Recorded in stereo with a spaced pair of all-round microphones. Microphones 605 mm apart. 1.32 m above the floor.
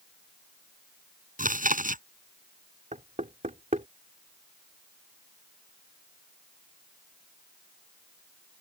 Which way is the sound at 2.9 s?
10° right (ahead or behind).